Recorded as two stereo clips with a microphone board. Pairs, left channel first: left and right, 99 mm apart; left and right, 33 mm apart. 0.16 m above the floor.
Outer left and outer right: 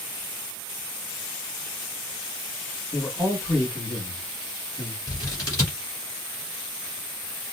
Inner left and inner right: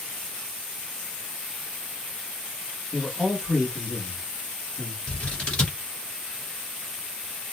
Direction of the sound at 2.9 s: 15° left (ahead or behind).